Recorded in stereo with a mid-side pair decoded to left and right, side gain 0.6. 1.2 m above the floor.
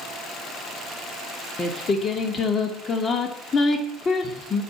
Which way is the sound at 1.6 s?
30° left.